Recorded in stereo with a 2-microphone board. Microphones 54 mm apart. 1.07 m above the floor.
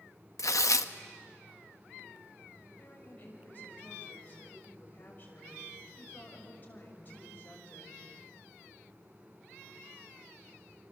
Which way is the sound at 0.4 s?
80° left.